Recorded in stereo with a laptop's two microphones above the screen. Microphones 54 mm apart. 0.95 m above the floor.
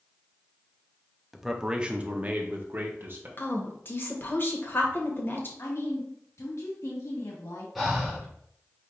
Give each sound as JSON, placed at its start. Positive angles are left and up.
{"t": 1.3, "sound": "a man speaking", "side_deg": -5, "distance_m": 0.7}
{"t": 3.4, "sound": "a woman speaking", "side_deg": 40, "distance_m": 1.2}
{"t": 5.6, "sound": "a woman speaking", "side_deg": 70, "distance_m": 1.7}
{"t": 7.8, "sound": "breathing", "side_deg": -5, "distance_m": 1.2}